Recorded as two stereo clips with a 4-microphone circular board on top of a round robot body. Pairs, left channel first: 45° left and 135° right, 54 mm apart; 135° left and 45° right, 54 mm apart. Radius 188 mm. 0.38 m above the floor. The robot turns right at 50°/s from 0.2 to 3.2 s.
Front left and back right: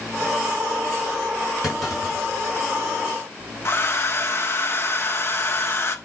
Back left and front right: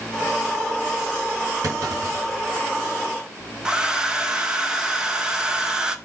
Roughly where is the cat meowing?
No cat meowing in this recording.